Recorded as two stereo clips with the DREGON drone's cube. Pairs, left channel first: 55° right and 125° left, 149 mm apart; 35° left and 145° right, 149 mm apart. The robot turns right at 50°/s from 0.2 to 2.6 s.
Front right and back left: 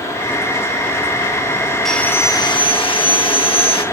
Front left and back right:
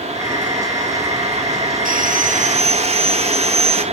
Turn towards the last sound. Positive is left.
turn(degrees=-105)